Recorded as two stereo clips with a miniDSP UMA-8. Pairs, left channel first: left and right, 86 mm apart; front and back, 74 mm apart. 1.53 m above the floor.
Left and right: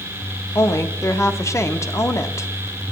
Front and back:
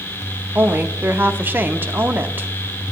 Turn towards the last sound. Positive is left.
turn(degrees=130)